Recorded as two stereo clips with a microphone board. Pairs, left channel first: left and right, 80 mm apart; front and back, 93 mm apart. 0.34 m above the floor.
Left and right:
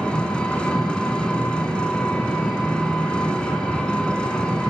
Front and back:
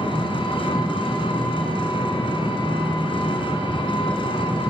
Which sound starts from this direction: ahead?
An engine running, at 0.0 s.